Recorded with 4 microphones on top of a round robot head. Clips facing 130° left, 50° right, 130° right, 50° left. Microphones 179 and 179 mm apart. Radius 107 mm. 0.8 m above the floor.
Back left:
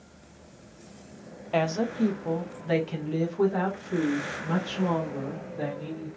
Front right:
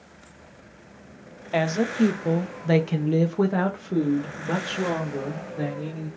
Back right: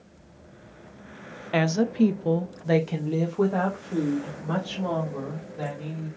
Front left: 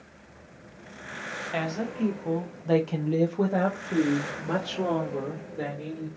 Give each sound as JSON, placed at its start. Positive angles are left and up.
{"t": 1.5, "sound": "a woman speaking", "azimuth_deg": -130, "distance_m": 0.7}